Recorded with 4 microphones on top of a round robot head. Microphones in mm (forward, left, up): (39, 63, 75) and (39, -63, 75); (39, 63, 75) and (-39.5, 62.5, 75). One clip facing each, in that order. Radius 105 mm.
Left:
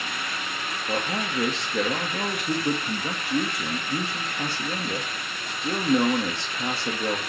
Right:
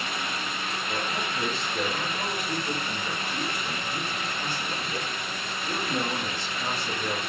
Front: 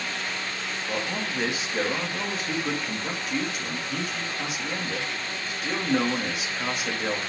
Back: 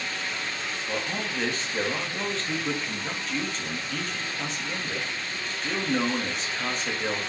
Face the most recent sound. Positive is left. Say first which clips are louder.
# left 5 dB, front 1 dB
turn(degrees=80)